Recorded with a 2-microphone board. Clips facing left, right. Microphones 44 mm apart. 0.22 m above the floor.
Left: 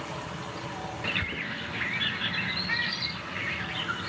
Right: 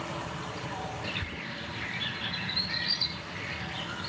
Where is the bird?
40° left (ahead or behind), 2 m.